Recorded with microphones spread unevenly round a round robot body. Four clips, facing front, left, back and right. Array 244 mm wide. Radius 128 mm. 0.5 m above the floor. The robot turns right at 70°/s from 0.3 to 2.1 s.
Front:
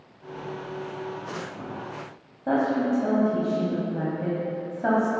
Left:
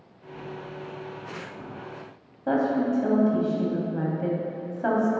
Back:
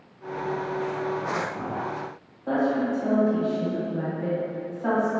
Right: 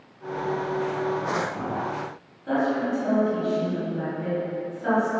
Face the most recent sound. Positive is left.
turn(degrees=35)